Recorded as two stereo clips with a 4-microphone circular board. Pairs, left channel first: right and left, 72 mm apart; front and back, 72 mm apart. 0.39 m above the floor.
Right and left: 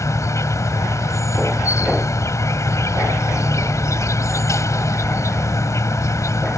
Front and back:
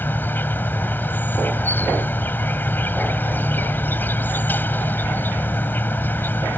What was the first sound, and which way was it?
An insect, 55° right.